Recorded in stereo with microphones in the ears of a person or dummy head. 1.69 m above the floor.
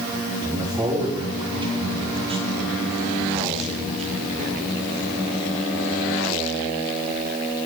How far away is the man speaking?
About 4.5 m.